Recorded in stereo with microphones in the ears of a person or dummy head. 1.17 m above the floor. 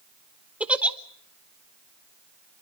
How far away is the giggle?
About 1.0 m.